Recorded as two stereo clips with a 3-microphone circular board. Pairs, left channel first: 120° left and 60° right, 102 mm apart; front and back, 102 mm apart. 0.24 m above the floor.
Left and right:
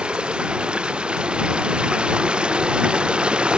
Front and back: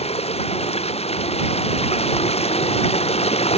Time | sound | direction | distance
0.0 | running water | 20° left | ?